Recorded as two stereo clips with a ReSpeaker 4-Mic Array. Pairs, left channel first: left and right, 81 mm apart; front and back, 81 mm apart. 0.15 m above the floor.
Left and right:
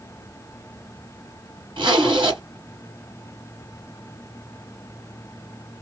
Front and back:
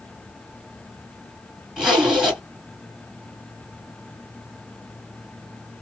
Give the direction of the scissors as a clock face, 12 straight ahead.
No scissors in this recording.